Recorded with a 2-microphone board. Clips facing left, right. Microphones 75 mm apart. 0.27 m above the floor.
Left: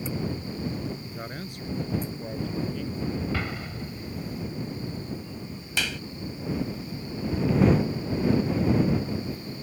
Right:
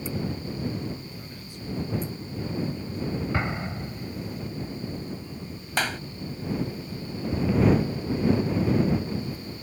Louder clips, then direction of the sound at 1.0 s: Left 5 dB; 50° left (ahead or behind).